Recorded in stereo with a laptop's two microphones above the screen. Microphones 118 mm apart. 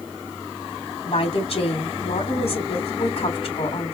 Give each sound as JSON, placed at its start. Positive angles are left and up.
{"t": 1.1, "sound": "a woman speaking", "side_deg": 60, "distance_m": 3.0}